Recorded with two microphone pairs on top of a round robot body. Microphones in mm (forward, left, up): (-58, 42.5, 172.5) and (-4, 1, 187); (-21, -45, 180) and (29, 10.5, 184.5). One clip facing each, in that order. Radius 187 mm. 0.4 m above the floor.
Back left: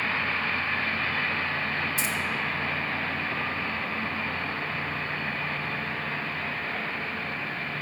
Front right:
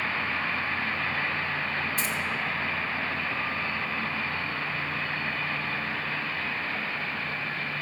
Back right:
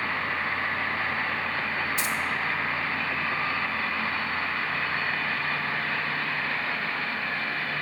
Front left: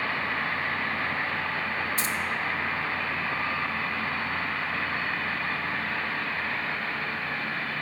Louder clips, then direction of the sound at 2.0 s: Even, back right 1 dB; straight ahead.